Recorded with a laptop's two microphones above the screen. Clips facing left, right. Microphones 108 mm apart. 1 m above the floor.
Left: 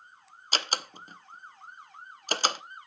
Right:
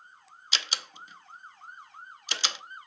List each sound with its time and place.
0.5 s a door slam: 45° left (ahead or behind), 0.6 m